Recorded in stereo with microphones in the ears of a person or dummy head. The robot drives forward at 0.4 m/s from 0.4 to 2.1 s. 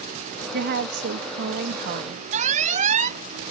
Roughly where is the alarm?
Right.